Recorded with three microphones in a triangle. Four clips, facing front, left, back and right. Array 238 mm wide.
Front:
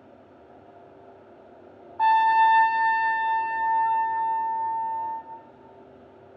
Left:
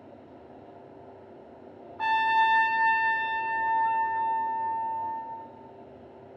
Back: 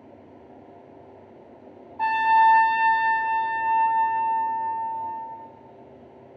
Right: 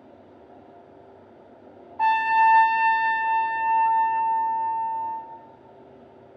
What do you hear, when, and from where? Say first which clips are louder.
2.0 s a trumpet: right 5 dB, even; 50° right, 0.8 m